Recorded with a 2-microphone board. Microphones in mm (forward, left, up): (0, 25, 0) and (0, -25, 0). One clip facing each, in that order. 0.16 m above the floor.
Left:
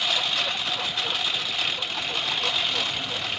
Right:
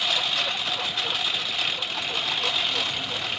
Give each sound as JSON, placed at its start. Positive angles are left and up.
{"t": 0.0, "sound": "a lawn mower", "side_deg": 0}